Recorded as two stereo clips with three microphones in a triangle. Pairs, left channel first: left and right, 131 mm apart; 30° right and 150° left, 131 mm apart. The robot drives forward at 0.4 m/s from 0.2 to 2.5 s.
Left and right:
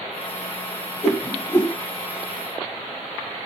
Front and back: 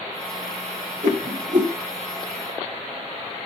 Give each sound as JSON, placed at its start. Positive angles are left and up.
{"t": 1.0, "sound": "a whoosh", "azimuth_deg": 160, "distance_m": 3.0}